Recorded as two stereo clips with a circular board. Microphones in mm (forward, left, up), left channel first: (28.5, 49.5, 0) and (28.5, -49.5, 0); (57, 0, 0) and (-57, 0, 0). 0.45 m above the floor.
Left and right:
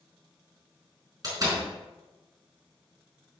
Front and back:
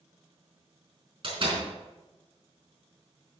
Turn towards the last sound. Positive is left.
turn(degrees=-140)